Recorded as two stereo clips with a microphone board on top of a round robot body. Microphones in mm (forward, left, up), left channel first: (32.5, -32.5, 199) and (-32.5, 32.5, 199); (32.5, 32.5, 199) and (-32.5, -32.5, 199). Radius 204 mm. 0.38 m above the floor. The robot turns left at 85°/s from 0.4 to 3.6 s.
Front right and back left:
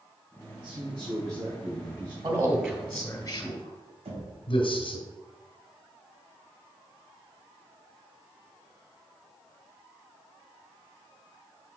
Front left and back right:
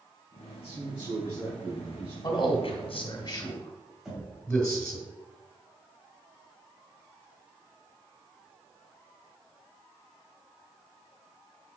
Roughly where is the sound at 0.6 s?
Ahead left.